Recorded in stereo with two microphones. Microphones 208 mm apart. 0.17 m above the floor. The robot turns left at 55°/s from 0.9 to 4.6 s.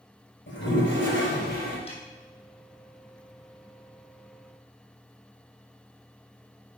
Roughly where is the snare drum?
Left.